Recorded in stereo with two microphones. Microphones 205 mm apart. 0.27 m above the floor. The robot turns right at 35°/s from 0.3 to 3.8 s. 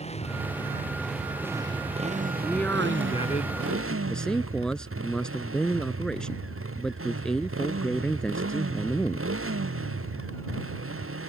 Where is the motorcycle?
150° left; by 11.3 s 85° right.